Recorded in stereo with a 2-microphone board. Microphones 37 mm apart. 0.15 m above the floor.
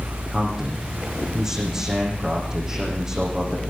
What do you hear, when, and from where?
0.3 s a man speaking: 25° right (ahead or behind), 7.5 m